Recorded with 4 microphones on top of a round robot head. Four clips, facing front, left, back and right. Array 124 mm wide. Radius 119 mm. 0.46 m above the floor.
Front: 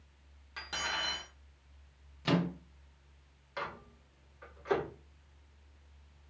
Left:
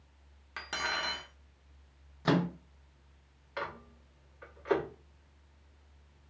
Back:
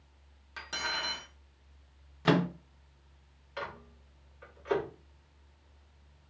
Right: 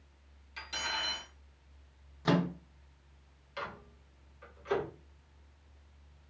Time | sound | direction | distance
0.6 | cutlery clinking | 95° left | 1.0 m
2.2 | a microwave | 170° left | 0.5 m
3.6 | a microwave | 70° left | 1.3 m